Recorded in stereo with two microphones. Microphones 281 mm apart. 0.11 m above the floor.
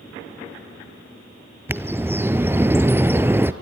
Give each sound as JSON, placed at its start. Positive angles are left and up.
{"t": 1.7, "sound": "a bird", "side_deg": -10, "distance_m": 0.8}